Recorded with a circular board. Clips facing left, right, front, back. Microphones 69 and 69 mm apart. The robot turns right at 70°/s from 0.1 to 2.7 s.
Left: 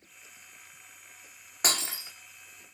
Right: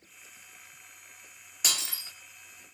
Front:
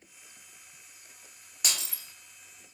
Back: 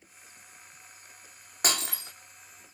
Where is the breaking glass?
135° left, 1.5 m; by 2.1 s 165° left, 1.5 m.